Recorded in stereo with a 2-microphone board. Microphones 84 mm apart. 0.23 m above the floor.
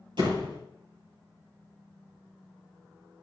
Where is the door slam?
70° right (ahead or behind), 3 m.